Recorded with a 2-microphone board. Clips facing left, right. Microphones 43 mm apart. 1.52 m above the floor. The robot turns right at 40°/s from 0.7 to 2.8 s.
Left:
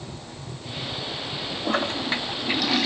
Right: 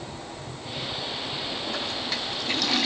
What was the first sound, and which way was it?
A toilet flushing, 130° left.